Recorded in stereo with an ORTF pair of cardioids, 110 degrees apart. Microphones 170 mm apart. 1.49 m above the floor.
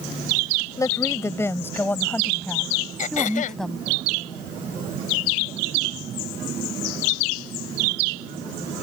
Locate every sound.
0.8 s a woman speaking: 20° left; by 3.9 s straight ahead
3.0 s throat clearing: 50° left